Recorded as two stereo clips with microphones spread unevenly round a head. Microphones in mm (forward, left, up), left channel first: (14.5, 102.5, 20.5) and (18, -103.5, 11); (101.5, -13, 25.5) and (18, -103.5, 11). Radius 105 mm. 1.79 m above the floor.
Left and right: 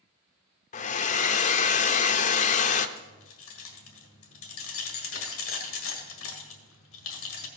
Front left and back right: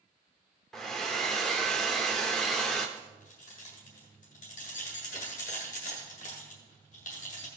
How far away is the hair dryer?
About 0.5 m.